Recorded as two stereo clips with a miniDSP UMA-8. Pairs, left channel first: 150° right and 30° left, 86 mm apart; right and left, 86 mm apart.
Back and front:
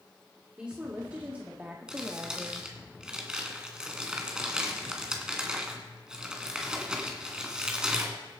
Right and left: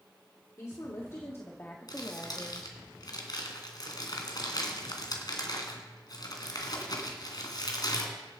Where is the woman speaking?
45° right, 2 m; by 2.7 s 10° left, 1.0 m.